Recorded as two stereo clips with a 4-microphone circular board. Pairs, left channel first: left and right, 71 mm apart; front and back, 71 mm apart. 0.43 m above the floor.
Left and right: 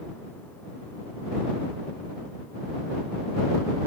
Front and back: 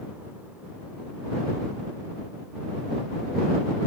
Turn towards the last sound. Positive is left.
No sound to turn to.